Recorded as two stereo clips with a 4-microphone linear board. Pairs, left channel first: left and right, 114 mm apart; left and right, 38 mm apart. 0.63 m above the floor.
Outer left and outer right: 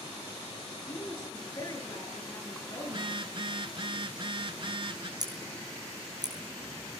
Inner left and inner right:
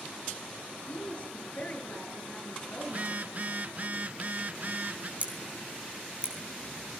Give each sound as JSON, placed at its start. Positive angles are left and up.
{"t": 0.8, "sound": "a woman speaking", "side_deg": 30, "distance_m": 8.0}
{"t": 2.8, "sound": "a phone buzzing", "side_deg": -45, "distance_m": 0.8}
{"t": 5.2, "sound": "scissors", "side_deg": -35, "distance_m": 7.0}